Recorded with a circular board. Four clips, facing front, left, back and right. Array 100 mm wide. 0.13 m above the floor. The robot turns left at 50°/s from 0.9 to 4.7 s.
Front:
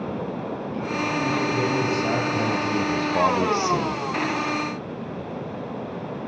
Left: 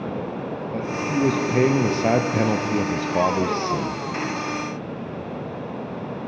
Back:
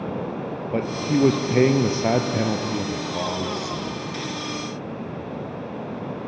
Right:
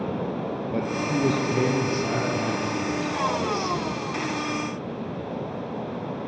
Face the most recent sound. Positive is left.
turn(degrees=-5)